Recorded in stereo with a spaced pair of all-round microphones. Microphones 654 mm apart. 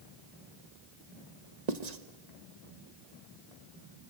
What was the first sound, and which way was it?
Writing, 80° right.